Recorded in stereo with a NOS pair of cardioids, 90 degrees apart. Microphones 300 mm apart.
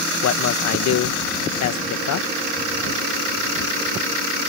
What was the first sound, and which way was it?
A man speaking, 65° left.